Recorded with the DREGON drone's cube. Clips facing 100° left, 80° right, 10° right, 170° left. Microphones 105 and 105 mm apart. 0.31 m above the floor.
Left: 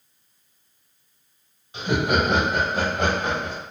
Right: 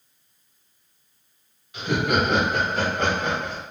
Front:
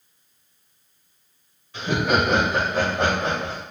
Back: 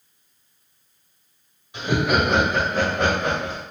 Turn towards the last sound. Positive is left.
turn(degrees=35)